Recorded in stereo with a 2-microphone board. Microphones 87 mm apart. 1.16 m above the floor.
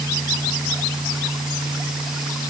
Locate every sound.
Only background noise.